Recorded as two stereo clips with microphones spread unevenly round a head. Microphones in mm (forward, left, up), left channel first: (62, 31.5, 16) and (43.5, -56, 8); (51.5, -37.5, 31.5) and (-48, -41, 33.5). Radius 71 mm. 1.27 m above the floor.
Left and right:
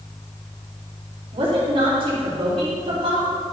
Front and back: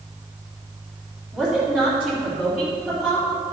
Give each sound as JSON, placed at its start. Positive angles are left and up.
{"t": 1.3, "sound": "a woman speaking", "azimuth_deg": -95, "distance_m": 2.5}